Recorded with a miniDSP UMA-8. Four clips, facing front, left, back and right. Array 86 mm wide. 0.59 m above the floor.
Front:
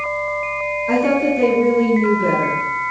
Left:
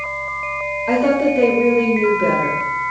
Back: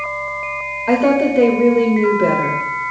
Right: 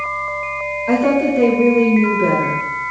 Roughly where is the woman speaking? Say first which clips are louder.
Right 1 dB, back 3 dB; behind.